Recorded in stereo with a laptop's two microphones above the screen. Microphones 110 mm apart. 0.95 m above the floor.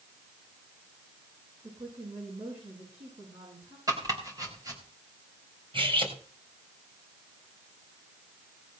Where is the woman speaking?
85° right, 9 m.